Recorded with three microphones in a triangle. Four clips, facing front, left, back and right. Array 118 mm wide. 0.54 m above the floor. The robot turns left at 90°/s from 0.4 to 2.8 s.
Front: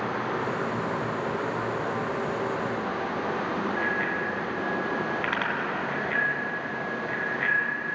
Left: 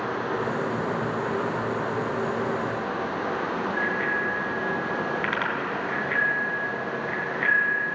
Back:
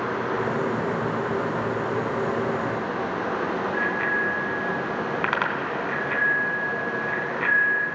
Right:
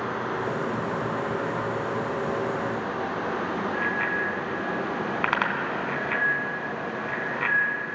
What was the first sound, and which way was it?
A bicycle bell, 125° right.